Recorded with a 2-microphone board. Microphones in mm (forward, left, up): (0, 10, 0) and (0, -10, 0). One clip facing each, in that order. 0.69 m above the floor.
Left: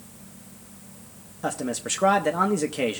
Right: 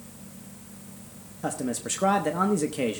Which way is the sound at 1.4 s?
15° left (ahead or behind).